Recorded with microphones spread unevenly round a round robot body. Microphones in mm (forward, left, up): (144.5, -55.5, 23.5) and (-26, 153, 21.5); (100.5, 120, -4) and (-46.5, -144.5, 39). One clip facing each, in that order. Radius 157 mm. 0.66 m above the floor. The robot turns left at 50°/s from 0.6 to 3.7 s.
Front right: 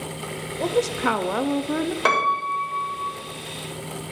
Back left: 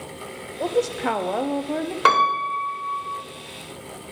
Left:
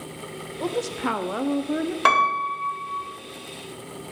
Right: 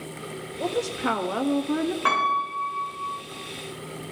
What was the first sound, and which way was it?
A woman speaking, 25° left.